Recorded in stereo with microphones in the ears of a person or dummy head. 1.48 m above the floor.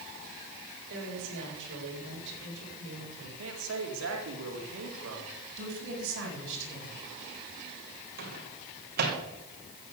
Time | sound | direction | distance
0.9 | a woman speaking | 75° right (ahead or behind) | 7 m
3.4 | a man speaking | 80° right | 4 m
5.6 | a woman speaking | 75° right (ahead or behind) | 8 m
8.2 | a microwave | 55° right (ahead or behind) | 3 m